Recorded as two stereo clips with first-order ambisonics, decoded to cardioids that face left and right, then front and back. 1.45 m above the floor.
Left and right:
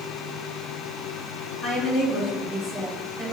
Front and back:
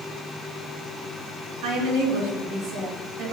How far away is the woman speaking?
About 3 m.